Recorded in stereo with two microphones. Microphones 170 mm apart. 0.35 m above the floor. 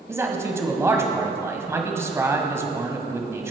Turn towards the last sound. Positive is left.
turn(degrees=-15)  # may be behind; listen again after turning